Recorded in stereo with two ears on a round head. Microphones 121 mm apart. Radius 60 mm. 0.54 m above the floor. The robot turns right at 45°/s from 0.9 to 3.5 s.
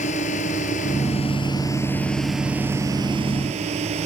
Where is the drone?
55° left (ahead or behind); by 4.1 s 50° right (ahead or behind).